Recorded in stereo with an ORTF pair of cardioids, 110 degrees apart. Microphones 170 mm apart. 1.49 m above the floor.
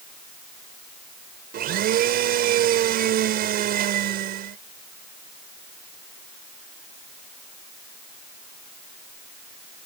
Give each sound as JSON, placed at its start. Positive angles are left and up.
{"t": 1.5, "sound": "a blender", "azimuth_deg": -65}